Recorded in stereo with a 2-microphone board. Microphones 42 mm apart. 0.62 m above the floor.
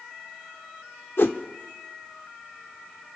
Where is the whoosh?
65° left (ahead or behind), 0.7 m.